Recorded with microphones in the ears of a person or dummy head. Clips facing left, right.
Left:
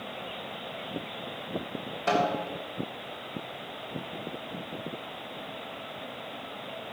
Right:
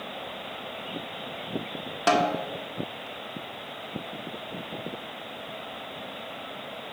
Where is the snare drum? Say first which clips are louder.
Right 3 dB; 80° right, 1.6 m.